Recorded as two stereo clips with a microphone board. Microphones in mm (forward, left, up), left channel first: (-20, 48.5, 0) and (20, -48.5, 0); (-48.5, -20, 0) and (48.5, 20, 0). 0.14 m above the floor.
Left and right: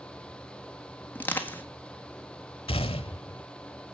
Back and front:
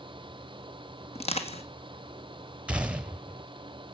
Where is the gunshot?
100° left, 0.7 m.